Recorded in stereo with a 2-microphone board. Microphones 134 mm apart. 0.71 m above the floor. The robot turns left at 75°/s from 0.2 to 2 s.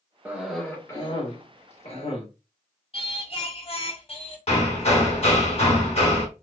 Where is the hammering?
50° left (ahead or behind), 1.2 m.